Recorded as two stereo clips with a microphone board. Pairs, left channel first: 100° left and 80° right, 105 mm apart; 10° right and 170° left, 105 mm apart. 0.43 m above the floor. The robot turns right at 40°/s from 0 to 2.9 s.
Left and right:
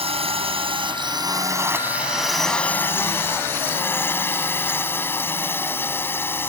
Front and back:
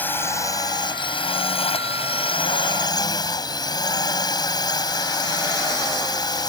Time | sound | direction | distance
0.0 | a drone | 85° right | ?